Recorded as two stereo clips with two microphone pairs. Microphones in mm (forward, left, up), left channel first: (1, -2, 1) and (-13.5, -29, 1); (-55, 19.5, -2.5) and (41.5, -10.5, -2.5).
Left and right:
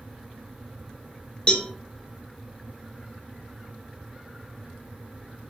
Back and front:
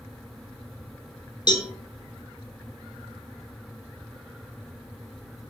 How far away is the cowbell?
About 0.9 m.